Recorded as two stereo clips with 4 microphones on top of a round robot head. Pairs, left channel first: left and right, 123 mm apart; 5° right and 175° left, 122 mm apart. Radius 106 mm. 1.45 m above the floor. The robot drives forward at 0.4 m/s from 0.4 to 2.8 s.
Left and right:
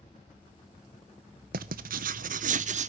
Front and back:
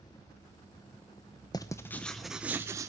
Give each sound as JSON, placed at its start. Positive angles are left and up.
{"t": 1.5, "sound": "writing", "azimuth_deg": -75, "distance_m": 0.8}